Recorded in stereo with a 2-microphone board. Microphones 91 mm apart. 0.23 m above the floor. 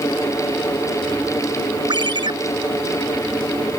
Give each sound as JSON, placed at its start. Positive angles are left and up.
{"t": 1.9, "sound": "a ringtone", "side_deg": -55}